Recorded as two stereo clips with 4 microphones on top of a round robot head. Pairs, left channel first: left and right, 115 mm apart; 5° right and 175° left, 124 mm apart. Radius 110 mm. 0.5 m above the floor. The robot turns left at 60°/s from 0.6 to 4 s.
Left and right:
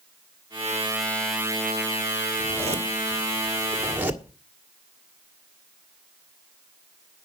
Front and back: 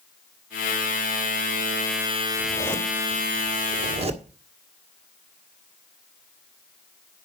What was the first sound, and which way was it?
A zipper, 70° right.